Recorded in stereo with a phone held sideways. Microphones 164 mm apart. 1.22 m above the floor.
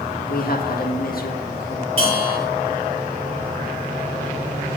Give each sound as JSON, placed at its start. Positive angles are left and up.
{"t": 0.3, "sound": "a man speaking", "side_deg": 65, "distance_m": 2.0}
{"t": 2.0, "sound": "a bell", "side_deg": -40, "distance_m": 7.0}